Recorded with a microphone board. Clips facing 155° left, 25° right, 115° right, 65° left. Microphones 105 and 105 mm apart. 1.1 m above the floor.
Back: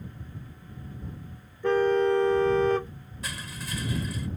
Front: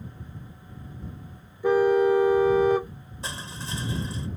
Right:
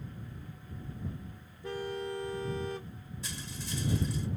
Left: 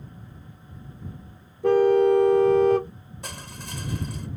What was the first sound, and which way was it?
A car horn, 55° left.